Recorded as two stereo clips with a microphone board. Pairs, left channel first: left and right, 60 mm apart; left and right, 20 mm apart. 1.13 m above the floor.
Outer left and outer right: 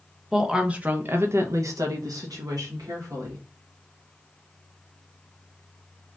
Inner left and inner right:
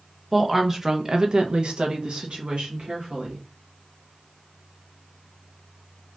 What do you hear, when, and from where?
0.3 s a woman speaking: 5° right (ahead or behind), 0.9 m; by 3.4 s 75° right (ahead or behind), 1.5 m